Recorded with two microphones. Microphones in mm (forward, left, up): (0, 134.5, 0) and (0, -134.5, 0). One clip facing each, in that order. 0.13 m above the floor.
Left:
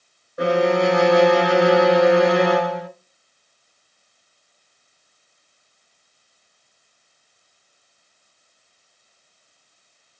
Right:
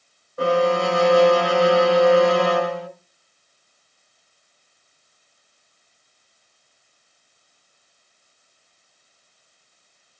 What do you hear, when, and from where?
0.4 s a violin: 20° left (ahead or behind), 0.6 m